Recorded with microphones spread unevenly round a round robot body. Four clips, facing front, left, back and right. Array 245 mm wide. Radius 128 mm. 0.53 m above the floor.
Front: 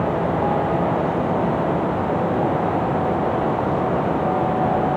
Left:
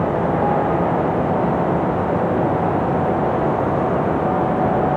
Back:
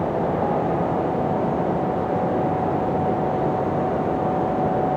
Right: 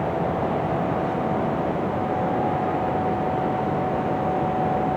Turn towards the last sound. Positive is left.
No sound to turn to.